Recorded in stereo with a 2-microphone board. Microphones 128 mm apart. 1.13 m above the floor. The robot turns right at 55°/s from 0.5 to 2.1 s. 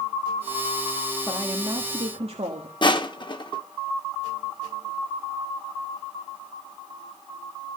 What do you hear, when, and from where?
1.2 s a woman speaking: 175° right, 1.7 m; by 2.7 s 130° right, 1.7 m
2.8 s crushing: 40° left (ahead or behind), 1.0 m